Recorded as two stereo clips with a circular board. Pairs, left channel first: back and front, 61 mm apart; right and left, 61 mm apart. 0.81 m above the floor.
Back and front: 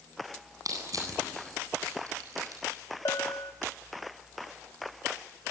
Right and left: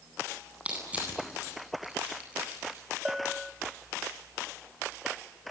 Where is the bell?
170° left, 1.0 m.